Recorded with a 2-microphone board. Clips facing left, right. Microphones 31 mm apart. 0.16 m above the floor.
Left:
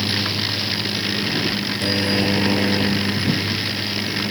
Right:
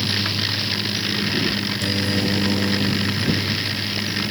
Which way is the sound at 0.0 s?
40° left (ahead or behind).